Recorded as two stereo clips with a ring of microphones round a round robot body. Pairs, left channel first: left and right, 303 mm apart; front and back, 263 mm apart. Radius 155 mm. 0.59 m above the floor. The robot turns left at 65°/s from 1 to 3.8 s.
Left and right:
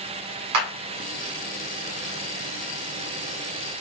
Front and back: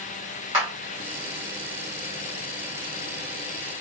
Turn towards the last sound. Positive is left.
turn(degrees=75)